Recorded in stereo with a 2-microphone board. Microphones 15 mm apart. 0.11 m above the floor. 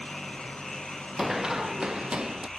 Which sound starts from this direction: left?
An engine running, at 0.0 s.